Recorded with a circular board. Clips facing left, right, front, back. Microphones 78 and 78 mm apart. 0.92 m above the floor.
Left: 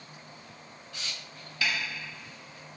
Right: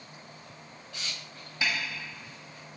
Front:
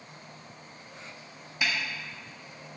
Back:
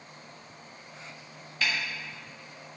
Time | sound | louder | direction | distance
1.6 | a snare drum | even, even | 60° right | 0.8 m